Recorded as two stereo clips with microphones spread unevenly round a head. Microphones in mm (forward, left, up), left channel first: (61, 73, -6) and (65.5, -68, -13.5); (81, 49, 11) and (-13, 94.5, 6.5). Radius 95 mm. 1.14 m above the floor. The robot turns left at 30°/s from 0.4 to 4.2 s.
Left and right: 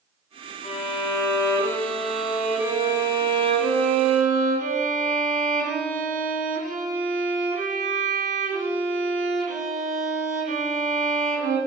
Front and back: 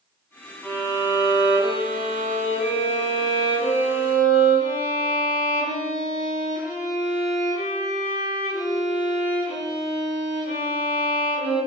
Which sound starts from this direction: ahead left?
A violin, at 0.6 s.